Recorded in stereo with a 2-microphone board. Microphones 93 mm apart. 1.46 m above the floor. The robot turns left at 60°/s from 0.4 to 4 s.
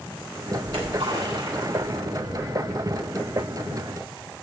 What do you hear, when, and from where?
0.6 s a splash: 80° right, 8 m; by 2.4 s 10° left (ahead or behind), 8 m